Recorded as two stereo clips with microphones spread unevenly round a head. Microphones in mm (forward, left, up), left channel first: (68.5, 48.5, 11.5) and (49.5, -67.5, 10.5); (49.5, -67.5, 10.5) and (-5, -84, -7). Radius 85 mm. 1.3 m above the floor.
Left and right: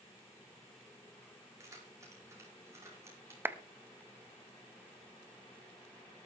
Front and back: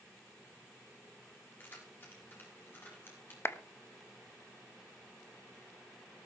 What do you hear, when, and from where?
1.6 s keys jangling: 35° right, 9 m
3.5 s a clap: 25° right, 1.3 m